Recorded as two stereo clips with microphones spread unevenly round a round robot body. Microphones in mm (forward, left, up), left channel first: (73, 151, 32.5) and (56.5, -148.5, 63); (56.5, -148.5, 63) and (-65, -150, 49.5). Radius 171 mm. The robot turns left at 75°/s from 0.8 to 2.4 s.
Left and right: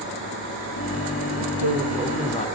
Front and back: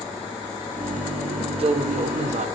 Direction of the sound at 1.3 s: 120° right.